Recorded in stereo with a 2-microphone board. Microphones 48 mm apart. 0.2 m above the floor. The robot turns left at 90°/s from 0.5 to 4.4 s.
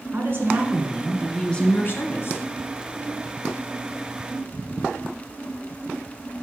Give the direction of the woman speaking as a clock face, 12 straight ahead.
4 o'clock.